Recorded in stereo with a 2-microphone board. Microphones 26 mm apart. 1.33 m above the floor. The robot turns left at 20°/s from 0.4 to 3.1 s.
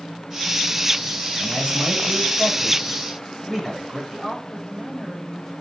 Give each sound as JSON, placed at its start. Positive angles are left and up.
{"t": 1.4, "sound": "a man speaking", "azimuth_deg": -155, "distance_m": 3.5}
{"t": 4.1, "sound": "a woman speaking", "side_deg": 15, "distance_m": 3.5}